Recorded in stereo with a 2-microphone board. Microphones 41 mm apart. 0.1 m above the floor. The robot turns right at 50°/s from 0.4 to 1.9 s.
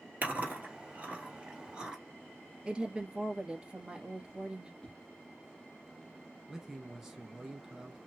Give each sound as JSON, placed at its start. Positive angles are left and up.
{"t": 0.2, "sound": "chewing", "side_deg": -40, "distance_m": 2.0}
{"t": 2.6, "sound": "a woman speaking", "side_deg": -20, "distance_m": 1.5}
{"t": 4.8, "sound": "a whoosh", "side_deg": 20, "distance_m": 1.5}
{"t": 6.5, "sound": "a man speaking", "side_deg": -10, "distance_m": 1.4}